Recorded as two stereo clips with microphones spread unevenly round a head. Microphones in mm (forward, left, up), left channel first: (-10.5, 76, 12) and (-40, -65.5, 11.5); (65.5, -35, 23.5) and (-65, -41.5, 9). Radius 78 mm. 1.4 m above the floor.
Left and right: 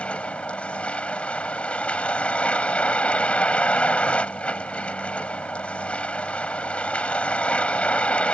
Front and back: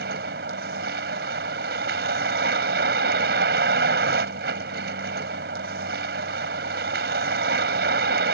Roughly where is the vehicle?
Behind.